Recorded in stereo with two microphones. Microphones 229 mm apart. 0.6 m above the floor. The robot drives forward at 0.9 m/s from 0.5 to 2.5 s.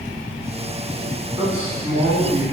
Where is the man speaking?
25° right (ahead or behind), 5 m; by 2.4 s 30° right (ahead or behind), 4 m.